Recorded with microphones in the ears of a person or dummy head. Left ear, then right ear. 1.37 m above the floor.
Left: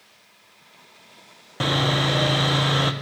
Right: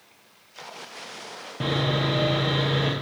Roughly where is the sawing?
Left.